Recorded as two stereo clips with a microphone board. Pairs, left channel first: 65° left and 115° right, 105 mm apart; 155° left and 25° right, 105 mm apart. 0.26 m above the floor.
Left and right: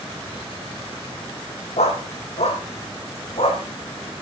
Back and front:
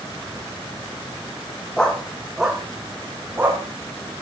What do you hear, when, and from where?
1.8 s a dog barking: 75° left, 3 m; by 3.6 s 45° left, 4.5 m